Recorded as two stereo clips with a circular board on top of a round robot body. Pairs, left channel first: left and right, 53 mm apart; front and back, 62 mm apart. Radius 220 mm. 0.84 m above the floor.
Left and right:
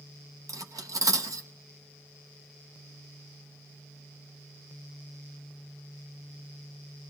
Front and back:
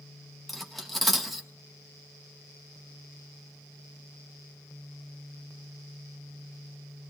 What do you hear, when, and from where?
0.5 s cutlery clinking: 90° right, 0.8 m